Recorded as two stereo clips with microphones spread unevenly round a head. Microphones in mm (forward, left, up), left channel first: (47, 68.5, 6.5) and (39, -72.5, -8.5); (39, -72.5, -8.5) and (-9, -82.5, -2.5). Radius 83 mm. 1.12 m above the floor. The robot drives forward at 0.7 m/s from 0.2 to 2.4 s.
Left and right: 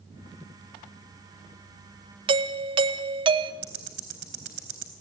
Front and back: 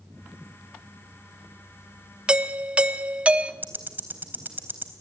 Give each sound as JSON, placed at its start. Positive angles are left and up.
{"t": 2.3, "sound": "a doorbell", "azimuth_deg": -100, "distance_m": 1.0}
{"t": 3.6, "sound": "ticking", "azimuth_deg": -120, "distance_m": 3.5}